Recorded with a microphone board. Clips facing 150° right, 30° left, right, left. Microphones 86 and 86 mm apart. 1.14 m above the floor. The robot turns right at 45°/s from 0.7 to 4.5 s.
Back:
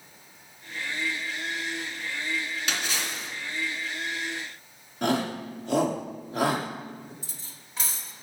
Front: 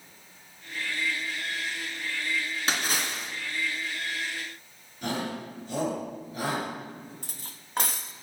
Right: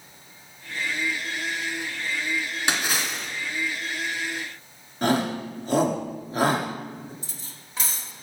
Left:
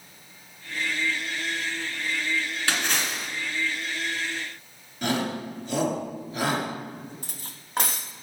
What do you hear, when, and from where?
2.7 s a splash: 20° right, 2.5 m; by 3.3 s 10° left, 2.5 m
5.0 s a shout: 135° right, 2.5 m
7.2 s cutlery clinking: 60° left, 0.9 m